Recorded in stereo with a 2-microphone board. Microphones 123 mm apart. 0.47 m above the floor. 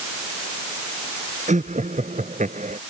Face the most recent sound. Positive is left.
turn(degrees=-85)